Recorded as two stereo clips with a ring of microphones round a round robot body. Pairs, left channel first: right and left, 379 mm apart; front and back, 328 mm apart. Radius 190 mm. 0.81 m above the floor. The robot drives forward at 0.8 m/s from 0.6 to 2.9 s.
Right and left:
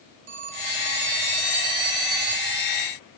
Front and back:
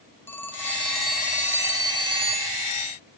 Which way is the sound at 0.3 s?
85° left.